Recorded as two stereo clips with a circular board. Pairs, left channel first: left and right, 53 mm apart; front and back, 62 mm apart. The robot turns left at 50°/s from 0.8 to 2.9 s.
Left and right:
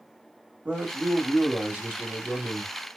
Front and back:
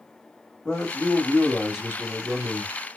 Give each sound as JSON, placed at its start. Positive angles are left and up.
{"t": 0.7, "sound": "a man speaking", "azimuth_deg": -60, "distance_m": 1.5}